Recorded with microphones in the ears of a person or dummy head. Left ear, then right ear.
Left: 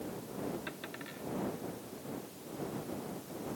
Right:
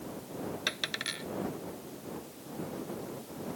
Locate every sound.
0.7 s a dropped coin: 80° right